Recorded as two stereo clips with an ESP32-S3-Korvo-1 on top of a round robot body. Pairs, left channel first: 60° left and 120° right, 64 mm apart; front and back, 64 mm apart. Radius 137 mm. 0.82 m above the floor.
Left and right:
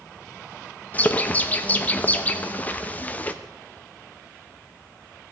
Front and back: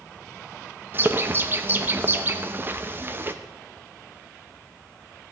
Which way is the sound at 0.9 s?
125° left.